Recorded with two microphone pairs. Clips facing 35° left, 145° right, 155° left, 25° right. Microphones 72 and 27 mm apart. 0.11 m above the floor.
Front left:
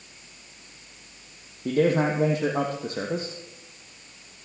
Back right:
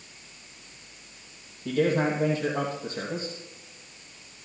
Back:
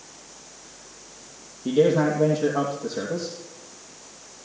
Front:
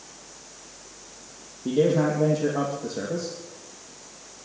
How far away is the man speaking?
About 3 m.